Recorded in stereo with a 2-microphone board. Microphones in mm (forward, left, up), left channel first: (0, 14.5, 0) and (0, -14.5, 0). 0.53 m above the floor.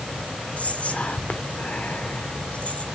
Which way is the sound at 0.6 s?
50° left (ahead or behind).